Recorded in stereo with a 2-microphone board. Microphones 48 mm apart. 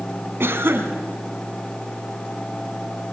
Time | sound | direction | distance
0.4 | a cough | 55° right (ahead or behind) | 2.5 m